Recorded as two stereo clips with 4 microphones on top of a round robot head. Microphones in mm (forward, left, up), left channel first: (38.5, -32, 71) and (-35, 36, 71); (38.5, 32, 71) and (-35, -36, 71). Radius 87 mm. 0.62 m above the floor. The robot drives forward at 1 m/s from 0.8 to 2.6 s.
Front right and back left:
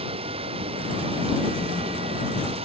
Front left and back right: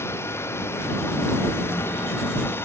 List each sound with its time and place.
0.0 s running water: 110° left